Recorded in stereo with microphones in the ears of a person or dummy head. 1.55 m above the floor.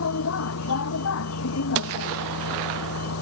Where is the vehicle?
85° left.